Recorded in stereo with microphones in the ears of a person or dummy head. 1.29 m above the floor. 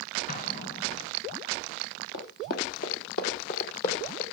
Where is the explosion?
45° left (ahead or behind), 2.5 m.